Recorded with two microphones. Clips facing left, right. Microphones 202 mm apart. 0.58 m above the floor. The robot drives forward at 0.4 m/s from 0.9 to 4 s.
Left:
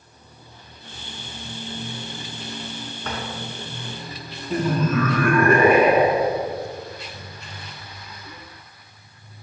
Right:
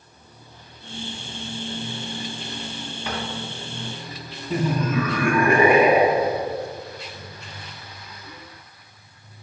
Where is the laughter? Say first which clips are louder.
Left 1 dB; 10° right (ahead or behind), 0.8 m.